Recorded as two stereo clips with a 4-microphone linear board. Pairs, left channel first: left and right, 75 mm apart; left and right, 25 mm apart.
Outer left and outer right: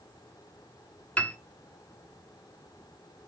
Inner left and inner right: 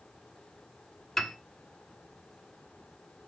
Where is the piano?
15° left (ahead or behind), 1.0 m.